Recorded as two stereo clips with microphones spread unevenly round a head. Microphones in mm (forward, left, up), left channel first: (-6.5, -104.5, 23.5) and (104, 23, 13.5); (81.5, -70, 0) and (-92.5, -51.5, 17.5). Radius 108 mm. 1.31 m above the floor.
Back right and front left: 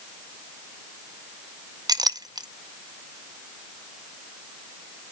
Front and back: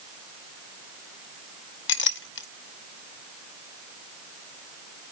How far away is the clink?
About 0.6 m.